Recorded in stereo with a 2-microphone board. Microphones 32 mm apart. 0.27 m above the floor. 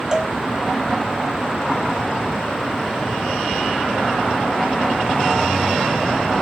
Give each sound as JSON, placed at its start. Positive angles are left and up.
{"t": 0.1, "sound": "a cowbell", "side_deg": -20}